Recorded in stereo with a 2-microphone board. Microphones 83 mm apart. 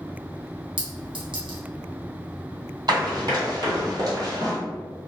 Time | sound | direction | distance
0.8 | a clink | 75° right (ahead or behind) | 0.9 m
2.9 | running footsteps | 50° right (ahead or behind) | 1.8 m